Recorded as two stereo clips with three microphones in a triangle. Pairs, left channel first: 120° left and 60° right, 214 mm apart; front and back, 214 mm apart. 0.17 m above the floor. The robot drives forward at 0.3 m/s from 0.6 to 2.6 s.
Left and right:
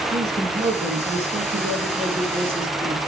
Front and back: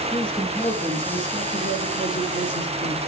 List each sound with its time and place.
0.1 s a man speaking: 85° right, 2.5 m; by 3.0 s 100° right, 2.5 m